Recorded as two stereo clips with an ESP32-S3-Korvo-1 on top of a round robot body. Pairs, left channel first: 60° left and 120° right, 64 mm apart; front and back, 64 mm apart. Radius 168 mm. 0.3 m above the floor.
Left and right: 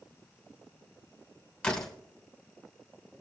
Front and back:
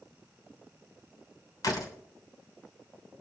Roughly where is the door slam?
Ahead.